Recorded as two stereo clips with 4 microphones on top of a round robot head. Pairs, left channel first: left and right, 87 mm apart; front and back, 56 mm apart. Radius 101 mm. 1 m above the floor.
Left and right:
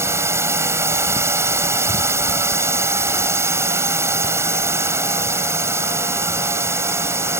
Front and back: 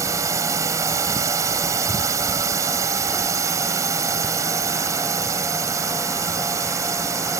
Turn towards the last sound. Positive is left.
turn(degrees=-150)